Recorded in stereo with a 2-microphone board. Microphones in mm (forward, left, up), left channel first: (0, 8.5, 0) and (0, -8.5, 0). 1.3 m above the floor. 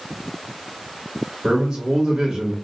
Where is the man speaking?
75° right (ahead or behind), 1.6 m.